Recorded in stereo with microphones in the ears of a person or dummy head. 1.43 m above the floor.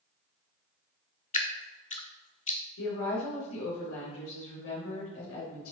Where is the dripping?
40° left (ahead or behind), 0.7 m.